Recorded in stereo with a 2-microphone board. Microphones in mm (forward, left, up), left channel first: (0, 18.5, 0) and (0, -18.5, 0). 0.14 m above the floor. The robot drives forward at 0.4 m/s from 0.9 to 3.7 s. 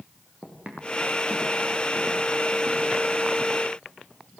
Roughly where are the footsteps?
Right.